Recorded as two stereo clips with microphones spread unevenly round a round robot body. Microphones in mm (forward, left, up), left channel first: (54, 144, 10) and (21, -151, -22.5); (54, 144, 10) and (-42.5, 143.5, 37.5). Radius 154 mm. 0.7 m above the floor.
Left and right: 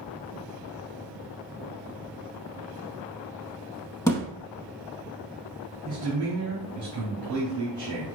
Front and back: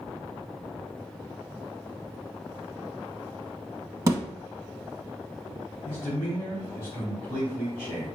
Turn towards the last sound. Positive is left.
turn(degrees=-90)